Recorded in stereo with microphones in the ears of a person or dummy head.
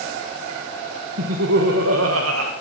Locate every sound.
1.2 s laughter: 85° right, 1.3 m